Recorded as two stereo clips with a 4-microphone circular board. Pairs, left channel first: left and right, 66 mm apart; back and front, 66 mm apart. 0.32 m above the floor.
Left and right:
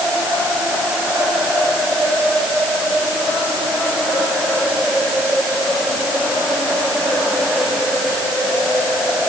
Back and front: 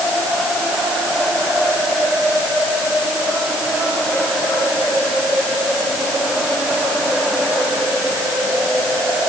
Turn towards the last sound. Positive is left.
No sound to turn to.